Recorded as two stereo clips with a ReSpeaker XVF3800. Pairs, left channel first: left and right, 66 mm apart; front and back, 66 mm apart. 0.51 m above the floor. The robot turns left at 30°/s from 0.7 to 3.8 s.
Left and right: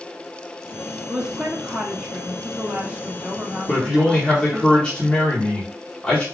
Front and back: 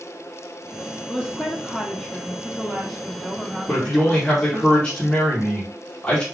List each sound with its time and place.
1.1 s a woman speaking: 35° right, 1.0 m; by 4.7 s 115° right, 1.0 m
3.7 s a man speaking: 50° left, 1.3 m; by 6.2 s 45° left, 1.3 m